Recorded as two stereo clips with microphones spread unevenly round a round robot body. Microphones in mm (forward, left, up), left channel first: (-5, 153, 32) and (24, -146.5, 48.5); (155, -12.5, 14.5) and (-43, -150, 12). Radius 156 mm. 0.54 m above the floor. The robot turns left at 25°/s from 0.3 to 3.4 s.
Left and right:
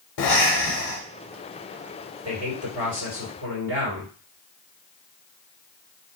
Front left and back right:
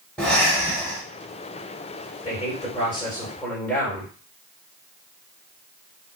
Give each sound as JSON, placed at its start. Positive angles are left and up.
{"t": 0.2, "sound": "breathing", "azimuth_deg": 120, "distance_m": 0.8}
{"t": 2.2, "sound": "a man speaking", "azimuth_deg": -20, "distance_m": 2.5}